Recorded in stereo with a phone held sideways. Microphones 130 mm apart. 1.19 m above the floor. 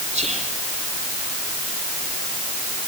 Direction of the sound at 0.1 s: 55° right (ahead or behind).